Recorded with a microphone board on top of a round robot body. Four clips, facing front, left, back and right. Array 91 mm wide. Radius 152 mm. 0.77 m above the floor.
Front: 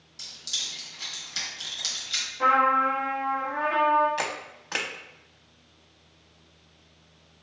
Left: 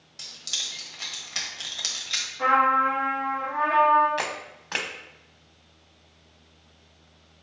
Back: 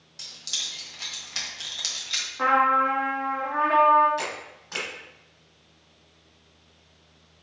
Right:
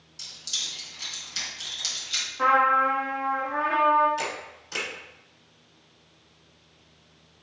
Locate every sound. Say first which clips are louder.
0.2 s keys jangling: left 2 dB, back 1 dB; 120° left, 1.0 m
2.4 s a trumpet: even, back 1 dB; 160° right, 1.0 m
4.2 s a camera shutter: left 1 dB, front 1 dB; 60° left, 0.7 m